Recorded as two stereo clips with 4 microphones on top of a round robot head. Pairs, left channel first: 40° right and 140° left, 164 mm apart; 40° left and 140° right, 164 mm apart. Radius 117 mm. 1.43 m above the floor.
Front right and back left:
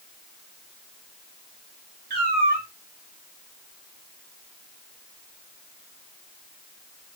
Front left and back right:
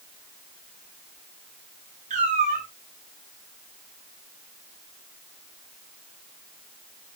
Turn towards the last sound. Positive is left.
turn(degrees=175)